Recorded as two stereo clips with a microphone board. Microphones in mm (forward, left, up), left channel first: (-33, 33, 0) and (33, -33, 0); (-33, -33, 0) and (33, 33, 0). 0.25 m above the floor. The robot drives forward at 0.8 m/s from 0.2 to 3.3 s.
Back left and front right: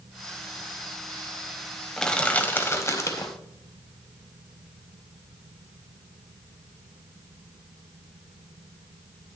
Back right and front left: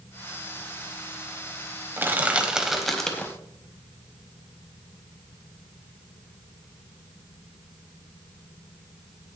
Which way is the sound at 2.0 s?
60° left.